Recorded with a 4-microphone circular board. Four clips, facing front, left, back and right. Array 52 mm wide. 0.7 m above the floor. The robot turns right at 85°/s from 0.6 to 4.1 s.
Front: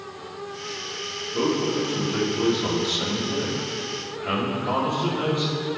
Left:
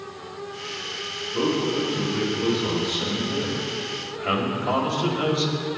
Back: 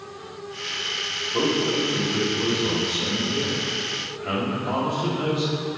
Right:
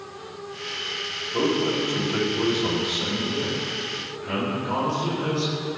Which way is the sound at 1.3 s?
145° right.